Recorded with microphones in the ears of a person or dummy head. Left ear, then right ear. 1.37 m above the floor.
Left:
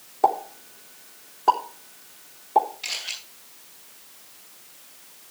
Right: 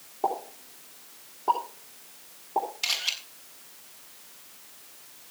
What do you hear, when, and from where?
0.2 s a pop: 65° left (ahead or behind), 3.5 m
2.8 s a camera shutter: 50° right (ahead or behind), 5.5 m